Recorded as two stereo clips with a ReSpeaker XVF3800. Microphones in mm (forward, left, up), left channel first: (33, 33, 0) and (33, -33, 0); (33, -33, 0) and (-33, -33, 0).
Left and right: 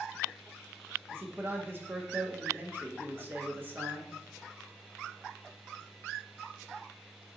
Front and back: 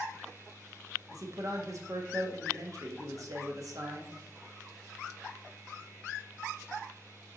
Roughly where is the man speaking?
Behind right.